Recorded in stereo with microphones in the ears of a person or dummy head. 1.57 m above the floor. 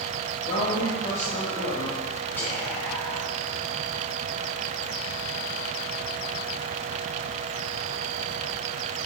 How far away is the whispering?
About 0.8 m.